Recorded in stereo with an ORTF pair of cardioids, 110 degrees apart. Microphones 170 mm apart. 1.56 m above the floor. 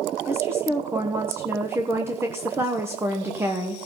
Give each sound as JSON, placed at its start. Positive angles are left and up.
{"t": 0.3, "sound": "a woman speaking", "azimuth_deg": -15, "distance_m": 1.1}